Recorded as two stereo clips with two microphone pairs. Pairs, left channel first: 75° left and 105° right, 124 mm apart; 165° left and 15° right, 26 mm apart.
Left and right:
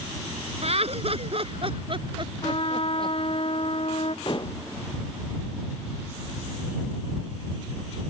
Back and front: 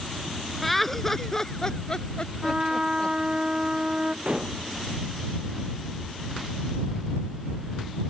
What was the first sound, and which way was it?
Laughter, 110° right.